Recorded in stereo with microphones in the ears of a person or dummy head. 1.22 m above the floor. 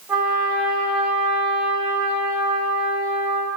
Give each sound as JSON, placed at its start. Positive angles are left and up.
{"t": 0.1, "sound": "a trumpet", "side_deg": -5, "distance_m": 2.5}